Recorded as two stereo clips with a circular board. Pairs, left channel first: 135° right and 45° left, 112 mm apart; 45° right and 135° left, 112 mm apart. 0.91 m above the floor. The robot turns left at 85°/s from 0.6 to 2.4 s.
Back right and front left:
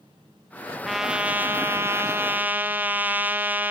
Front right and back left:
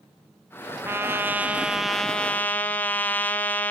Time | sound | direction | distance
0.8 | a trumpet | 135° left | 0.6 m